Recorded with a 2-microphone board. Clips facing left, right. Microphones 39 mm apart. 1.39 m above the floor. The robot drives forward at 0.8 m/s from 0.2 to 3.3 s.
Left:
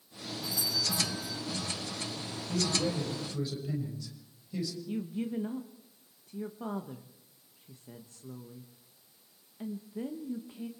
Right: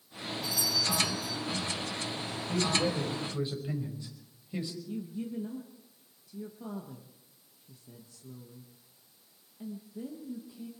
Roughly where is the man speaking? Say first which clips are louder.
Right 2 dB; right.